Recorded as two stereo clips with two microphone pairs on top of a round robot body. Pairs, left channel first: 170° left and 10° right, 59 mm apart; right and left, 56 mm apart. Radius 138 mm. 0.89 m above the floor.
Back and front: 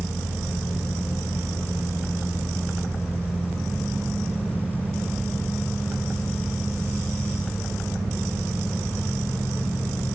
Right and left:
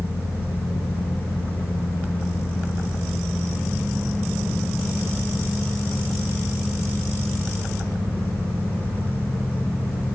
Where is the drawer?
No drawer in this recording.